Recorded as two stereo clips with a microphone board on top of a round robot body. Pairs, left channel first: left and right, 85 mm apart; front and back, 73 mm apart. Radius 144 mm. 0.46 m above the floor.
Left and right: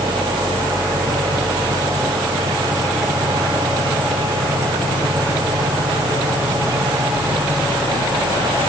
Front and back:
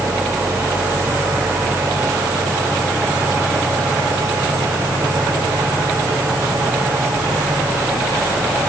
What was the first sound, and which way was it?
Only background noise.